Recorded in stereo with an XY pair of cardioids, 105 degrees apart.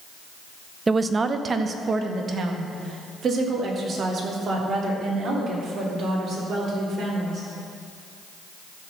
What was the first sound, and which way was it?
A woman speaking, 25° right.